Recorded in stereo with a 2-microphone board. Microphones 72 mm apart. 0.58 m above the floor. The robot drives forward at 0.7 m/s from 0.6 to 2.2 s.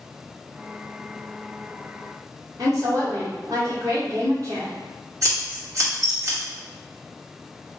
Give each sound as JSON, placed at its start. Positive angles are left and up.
{"t": 2.6, "sound": "a woman speaking", "side_deg": -50, "distance_m": 1.8}
{"t": 5.2, "sound": "scissors", "side_deg": -50, "distance_m": 1.8}